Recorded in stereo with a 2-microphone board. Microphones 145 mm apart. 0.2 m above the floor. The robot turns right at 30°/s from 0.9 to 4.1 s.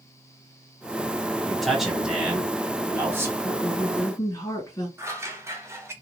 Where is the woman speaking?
35° left (ahead or behind), 2 m; by 4.9 s 20° left (ahead or behind), 2 m.